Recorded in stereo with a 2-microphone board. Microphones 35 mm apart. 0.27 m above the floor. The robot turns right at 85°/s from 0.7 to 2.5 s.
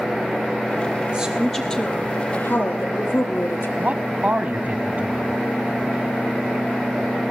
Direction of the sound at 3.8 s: 45° right (ahead or behind).